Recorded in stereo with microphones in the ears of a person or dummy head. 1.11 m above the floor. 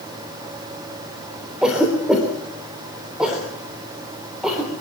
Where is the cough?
5° right (ahead or behind), 3.5 m.